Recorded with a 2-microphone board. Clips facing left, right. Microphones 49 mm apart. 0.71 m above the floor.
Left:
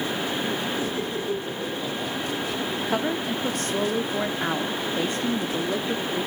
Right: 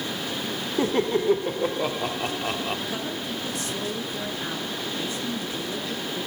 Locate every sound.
0.8 s laughter: 60° right (ahead or behind), 1.9 m
2.9 s a woman speaking: 50° left (ahead or behind), 1.2 m